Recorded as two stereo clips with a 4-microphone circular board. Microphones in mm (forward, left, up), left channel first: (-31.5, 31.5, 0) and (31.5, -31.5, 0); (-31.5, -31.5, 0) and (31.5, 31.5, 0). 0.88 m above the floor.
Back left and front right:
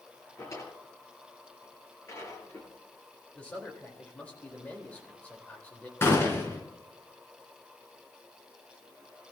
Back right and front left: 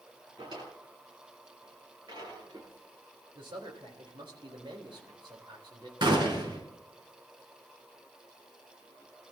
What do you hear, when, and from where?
0.4 s a drawer: 80° left, 8 m
3.4 s a man speaking: 60° left, 4 m
6.0 s a gunshot: 75° left, 4 m